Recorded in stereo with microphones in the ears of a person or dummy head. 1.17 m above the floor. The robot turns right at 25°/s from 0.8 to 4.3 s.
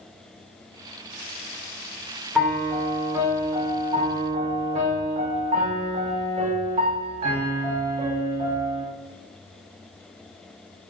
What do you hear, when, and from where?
2.4 s a piano: straight behind, 1.2 m; by 8.8 s 135° right, 1.2 m